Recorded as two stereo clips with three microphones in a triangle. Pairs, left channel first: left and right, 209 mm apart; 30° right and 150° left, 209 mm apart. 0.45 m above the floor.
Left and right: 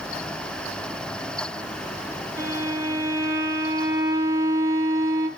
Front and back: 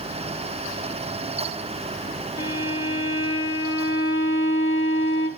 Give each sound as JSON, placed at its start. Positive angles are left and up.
{"t": 2.4, "sound": "a violin", "azimuth_deg": -15, "distance_m": 4.5}